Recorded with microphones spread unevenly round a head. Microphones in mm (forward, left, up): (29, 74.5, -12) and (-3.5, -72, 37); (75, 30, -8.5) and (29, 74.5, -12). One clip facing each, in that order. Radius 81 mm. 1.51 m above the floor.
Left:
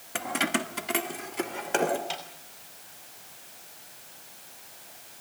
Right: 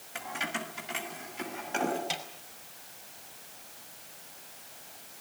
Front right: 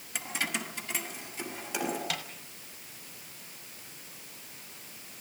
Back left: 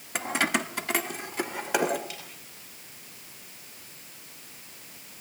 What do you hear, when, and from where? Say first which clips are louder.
0.1 s keys jangling: left 8 dB, back left 8 dB; 115° left, 1.1 m
2.1 s a snare drum: left 1 dB, front right 7 dB; 30° right, 5 m